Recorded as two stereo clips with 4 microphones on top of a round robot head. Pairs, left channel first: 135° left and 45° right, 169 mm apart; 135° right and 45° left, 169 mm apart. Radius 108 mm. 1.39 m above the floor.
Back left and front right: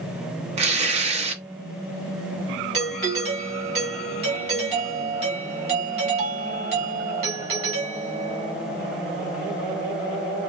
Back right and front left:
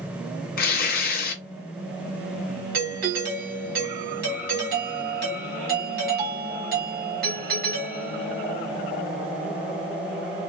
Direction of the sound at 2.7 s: 10° left.